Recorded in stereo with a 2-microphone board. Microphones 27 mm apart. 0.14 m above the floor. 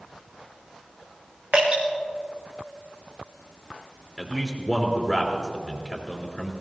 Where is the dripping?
55° right (ahead or behind), 4 m.